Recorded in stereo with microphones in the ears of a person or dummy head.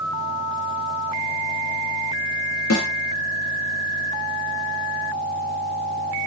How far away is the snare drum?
About 0.7 m.